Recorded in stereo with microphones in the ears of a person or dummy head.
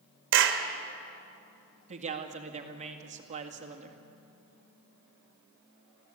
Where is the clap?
60° right (ahead or behind), 1.9 m.